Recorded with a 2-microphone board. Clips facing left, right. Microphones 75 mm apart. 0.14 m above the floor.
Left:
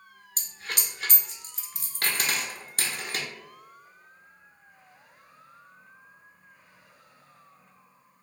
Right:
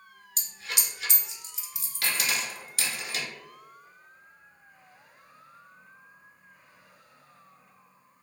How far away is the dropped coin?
About 0.5 m.